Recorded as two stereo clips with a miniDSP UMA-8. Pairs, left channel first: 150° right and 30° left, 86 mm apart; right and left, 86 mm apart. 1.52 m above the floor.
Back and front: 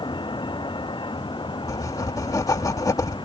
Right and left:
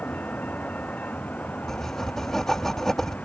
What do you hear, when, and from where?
0.0 s a vehicle: 160° right
1.7 s writing: 175° right